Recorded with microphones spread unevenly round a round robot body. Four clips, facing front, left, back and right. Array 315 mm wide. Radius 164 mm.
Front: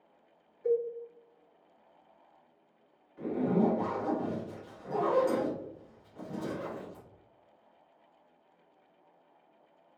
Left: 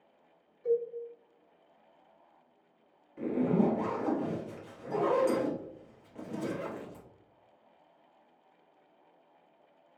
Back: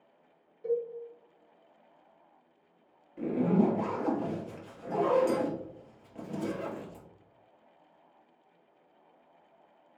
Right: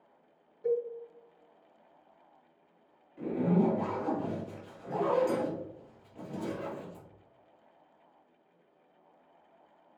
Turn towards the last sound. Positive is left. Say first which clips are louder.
# even, back 2 dB
turn(degrees=150)